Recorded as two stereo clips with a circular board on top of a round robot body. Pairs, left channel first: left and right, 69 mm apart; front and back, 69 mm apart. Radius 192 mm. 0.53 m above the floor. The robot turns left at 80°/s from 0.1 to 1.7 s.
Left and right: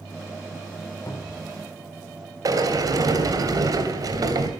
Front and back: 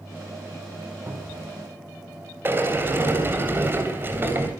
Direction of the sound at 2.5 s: 120° right.